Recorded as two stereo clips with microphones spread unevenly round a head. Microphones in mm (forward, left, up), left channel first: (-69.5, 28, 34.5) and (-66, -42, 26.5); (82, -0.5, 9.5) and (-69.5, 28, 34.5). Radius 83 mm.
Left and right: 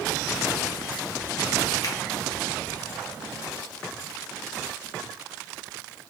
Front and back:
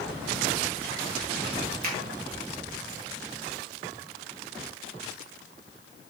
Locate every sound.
1.8 s a finger snap: 135° left, 1.2 m